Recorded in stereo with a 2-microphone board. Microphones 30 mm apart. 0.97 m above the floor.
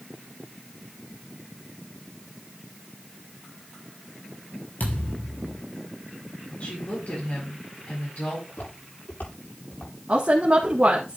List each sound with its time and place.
4.8 s a thud: 80° left, 4 m
6.6 s a woman speaking: 60° left (ahead or behind), 5 m
8.5 s footsteps: 80° left, 8 m; by 9.9 s 75° left (ahead or behind), 8.5 m
10.1 s a woman speaking: 40° right (ahead or behind), 1.8 m